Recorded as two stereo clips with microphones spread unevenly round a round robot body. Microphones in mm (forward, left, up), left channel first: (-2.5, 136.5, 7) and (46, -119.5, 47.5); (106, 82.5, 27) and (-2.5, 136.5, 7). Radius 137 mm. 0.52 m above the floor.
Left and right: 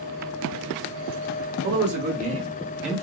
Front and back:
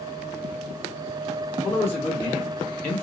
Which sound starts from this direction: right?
A man speaking, at 1.6 s.